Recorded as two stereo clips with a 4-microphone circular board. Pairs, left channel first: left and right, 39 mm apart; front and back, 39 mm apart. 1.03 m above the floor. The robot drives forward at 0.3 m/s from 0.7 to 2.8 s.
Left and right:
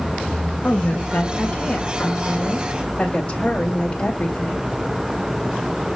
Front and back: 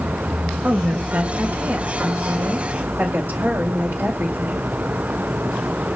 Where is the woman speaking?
140° left, 2.0 m; by 4.7 s 150° left, 2.5 m.